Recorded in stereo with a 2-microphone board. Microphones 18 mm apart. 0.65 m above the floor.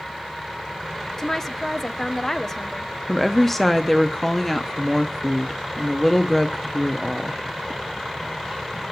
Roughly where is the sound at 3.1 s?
Centre.